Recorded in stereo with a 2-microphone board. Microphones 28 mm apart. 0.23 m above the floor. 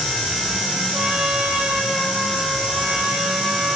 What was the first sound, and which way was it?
A trumpet, 45° right (ahead or behind).